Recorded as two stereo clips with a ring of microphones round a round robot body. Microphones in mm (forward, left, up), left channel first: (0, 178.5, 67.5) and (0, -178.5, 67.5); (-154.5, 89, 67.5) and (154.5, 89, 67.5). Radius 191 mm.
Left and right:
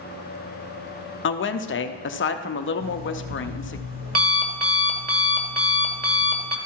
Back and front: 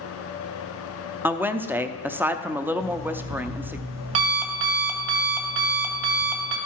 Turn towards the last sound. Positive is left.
turn(degrees=-25)